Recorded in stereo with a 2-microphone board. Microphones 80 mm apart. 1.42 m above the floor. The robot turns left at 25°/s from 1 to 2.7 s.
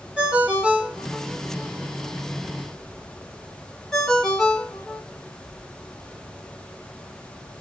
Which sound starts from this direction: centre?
A ringtone, at 0.2 s.